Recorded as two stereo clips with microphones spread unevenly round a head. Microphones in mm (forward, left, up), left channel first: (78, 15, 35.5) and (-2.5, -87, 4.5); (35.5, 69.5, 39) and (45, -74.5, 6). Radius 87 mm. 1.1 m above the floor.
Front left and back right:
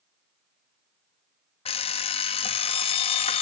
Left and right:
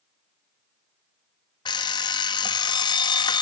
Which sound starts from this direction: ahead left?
An alarm clock, at 1.6 s.